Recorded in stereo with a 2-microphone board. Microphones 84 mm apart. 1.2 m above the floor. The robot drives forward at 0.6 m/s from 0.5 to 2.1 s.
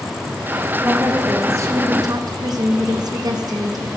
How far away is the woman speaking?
About 1.6 m.